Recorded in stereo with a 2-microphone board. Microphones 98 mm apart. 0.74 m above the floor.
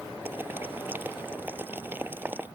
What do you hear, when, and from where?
0.2 s boiling: 20° right (ahead or behind)